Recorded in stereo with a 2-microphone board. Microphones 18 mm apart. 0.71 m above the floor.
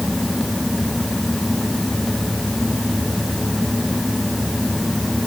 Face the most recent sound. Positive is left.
No sound to turn to.